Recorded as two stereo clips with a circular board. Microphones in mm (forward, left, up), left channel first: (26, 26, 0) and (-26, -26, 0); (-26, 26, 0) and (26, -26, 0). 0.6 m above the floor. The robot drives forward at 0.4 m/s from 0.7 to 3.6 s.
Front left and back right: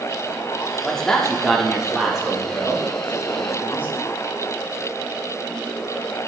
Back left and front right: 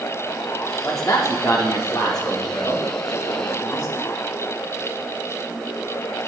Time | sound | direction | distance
0.8 | a man speaking | 120° left | 0.9 m